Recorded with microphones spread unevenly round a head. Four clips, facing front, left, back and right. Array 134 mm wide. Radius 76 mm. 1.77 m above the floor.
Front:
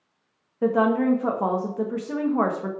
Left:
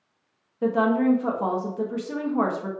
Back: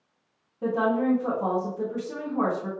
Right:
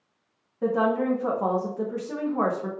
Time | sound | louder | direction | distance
0.6 | a woman speaking | left 2 dB, front 4 dB | 20° right | 0.8 m